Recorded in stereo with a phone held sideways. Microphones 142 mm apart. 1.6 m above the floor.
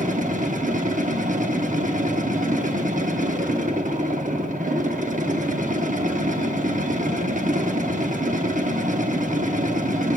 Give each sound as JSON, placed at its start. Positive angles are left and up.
{"t": 0.0, "sound": "a machine running", "side_deg": -65, "distance_m": 0.7}